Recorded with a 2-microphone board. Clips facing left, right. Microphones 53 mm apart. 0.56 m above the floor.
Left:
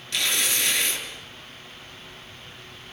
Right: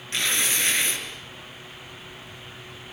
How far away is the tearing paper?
About 4.5 m.